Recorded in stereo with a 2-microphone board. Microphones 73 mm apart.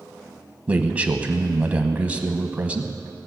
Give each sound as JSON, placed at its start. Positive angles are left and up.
{"t": 0.7, "sound": "a man speaking", "side_deg": -20, "distance_m": 1.2}